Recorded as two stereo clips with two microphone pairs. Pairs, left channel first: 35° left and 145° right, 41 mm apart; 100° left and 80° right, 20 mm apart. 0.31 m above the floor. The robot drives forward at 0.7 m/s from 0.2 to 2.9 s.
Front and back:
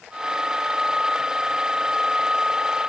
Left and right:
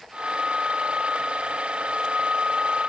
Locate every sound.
Only background noise.